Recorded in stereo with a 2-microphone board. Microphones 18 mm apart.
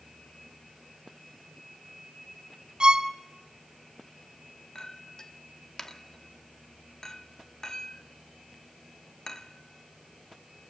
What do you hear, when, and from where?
2.8 s a violin: 60° right (ahead or behind), 0.9 m
4.8 s a clink: 45° left (ahead or behind), 1.0 m